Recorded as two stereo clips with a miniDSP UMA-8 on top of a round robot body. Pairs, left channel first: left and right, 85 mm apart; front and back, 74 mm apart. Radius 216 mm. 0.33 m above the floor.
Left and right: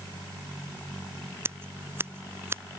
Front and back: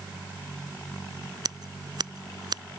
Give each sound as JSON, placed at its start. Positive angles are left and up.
{"t": 1.4, "sound": "scissors", "azimuth_deg": -155}